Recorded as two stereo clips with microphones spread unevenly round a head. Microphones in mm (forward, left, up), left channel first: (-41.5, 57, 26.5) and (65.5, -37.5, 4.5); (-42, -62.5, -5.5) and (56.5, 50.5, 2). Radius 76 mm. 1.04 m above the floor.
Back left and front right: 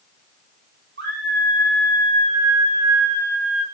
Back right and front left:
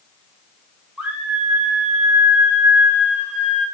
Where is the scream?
35° right, 5.5 m.